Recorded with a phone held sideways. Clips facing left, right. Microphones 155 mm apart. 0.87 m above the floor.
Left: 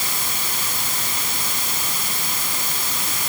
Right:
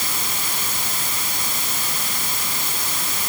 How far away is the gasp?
I don't hear a gasp.